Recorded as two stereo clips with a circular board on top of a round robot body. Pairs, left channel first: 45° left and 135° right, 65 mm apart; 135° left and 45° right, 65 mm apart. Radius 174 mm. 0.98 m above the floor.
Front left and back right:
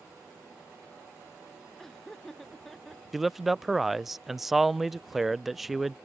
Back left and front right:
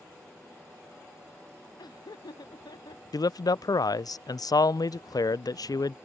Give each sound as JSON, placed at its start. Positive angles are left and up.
{"t": 1.8, "sound": "laughter", "azimuth_deg": 130}
{"t": 3.1, "sound": "a man speaking", "azimuth_deg": 140}